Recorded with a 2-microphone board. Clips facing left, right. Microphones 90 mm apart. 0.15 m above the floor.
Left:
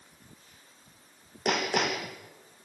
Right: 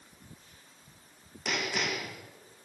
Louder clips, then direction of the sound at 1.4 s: Left 5 dB; 55° left (ahead or behind).